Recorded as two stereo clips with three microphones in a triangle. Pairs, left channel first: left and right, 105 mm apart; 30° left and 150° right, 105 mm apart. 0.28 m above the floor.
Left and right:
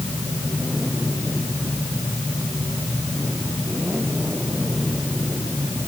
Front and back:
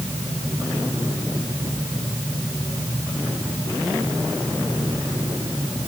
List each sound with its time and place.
Only background noise.